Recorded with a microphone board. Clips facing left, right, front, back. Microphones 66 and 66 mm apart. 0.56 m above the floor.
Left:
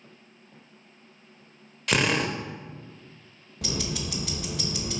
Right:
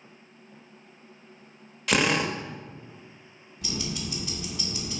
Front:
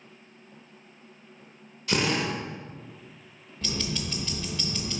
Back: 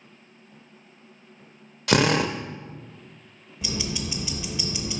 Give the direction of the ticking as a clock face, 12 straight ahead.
9 o'clock.